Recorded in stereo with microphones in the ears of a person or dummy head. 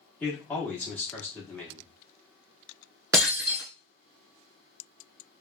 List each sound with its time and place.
0.2 s a man speaking: 10° left (ahead or behind), 1.4 m
3.1 s breaking glass: 10° right (ahead or behind), 1.1 m